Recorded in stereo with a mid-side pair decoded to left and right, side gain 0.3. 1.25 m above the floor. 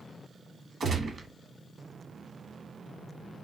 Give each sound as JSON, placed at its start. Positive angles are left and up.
{"t": 0.8, "sound": "a gunshot", "azimuth_deg": -65, "distance_m": 1.2}